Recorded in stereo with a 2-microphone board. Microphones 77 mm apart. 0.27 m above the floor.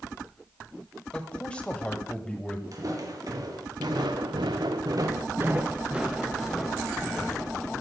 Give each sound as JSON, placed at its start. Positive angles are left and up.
{"t": 1.1, "sound": "a man speaking", "side_deg": 15, "distance_m": 1.1}
{"t": 2.7, "sound": "footsteps", "side_deg": -50, "distance_m": 2.5}